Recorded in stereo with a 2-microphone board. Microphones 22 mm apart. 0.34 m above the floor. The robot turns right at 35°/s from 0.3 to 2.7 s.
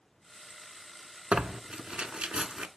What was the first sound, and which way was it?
Tearing paper, 75° right (ahead or behind).